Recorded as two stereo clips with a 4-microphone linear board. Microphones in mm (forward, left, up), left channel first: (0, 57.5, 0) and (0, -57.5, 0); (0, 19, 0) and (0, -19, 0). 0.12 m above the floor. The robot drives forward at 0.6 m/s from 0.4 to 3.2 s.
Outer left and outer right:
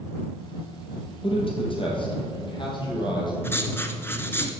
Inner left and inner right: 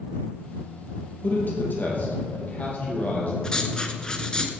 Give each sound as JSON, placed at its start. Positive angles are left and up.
{"t": 1.2, "sound": "a man speaking", "side_deg": 50, "distance_m": 4.0}
{"t": 3.4, "sound": "writing", "side_deg": 20, "distance_m": 1.3}